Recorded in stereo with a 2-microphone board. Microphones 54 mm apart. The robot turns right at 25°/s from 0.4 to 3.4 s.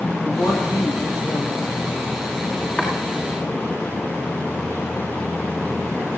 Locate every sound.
0.2 s a woman speaking: 55° left, 9 m; by 1.8 s 90° left, 9 m
2.8 s chopping: 15° left (ahead or behind), 7 m; by 2.9 s 20° left (ahead or behind), 7 m